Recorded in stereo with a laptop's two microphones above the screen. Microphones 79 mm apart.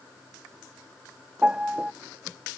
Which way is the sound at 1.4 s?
15° right (ahead or behind).